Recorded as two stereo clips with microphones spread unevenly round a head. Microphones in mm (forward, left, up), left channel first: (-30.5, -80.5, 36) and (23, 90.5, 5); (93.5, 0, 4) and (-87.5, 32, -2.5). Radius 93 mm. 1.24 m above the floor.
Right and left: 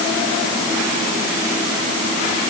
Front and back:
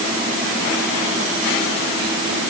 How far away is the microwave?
No microwave in this recording.